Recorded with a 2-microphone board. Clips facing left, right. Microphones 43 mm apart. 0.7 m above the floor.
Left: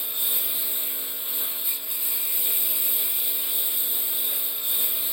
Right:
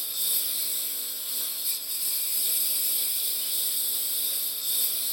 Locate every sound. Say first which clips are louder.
0.0 s a lawn mower: left 2 dB; 25° left (ahead or behind)